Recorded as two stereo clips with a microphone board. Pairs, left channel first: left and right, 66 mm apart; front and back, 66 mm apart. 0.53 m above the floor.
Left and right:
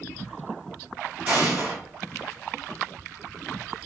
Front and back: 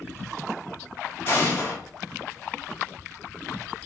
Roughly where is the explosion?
Ahead right.